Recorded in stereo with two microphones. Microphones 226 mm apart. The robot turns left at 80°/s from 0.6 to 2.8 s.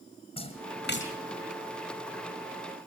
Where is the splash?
25° left (ahead or behind), 1.9 m; by 1.1 s 65° left (ahead or behind), 1.9 m.